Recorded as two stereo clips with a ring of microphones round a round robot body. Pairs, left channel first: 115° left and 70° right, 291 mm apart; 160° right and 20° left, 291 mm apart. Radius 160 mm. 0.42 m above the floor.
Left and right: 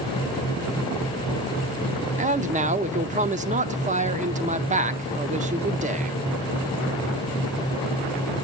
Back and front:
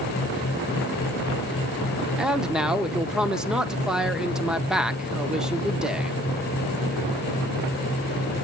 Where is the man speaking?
60° right, 0.9 m.